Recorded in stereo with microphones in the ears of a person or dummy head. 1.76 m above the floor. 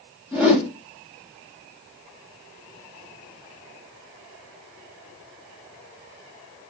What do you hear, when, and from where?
0.3 s a whoosh: 5° right (ahead or behind), 1.4 m